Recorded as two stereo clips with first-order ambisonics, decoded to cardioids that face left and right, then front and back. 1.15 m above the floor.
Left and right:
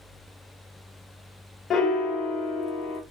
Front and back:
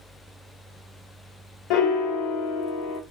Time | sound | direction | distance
1.7 | a piano | 25° left | 0.6 m